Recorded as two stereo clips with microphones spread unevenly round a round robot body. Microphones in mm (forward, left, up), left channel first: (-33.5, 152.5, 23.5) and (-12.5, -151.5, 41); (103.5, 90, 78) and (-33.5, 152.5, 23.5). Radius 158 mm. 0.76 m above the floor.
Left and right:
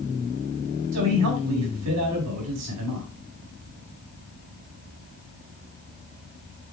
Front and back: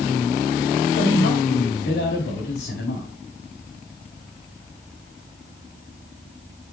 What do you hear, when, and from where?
0.9 s a man speaking: 45° right, 5 m